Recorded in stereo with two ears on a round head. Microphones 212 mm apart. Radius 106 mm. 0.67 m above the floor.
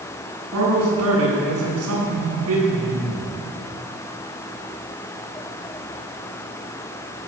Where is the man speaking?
65° right (ahead or behind), 6.5 m.